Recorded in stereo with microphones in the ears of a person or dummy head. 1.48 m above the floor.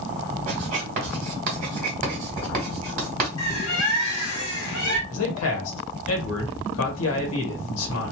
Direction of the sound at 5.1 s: 80° left.